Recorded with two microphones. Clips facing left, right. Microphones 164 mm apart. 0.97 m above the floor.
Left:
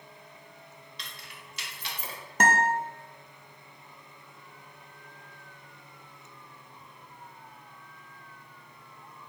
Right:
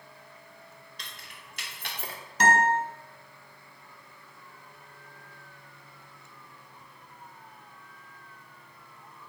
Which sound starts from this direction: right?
Keys jangling, at 1.0 s.